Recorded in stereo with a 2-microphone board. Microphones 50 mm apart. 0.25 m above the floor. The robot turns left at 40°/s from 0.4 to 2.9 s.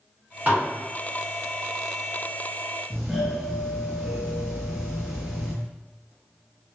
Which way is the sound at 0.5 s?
35° right (ahead or behind).